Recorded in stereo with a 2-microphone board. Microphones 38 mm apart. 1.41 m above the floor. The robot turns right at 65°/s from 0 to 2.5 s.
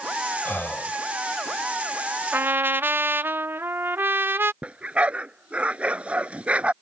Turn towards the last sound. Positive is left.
turn(degrees=-35)  # may be behind; listen again after turning